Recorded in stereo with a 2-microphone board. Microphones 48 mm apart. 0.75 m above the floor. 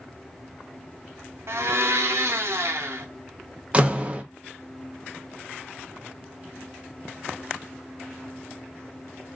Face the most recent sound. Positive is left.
turn(degrees=-25)  # may be behind; listen again after turning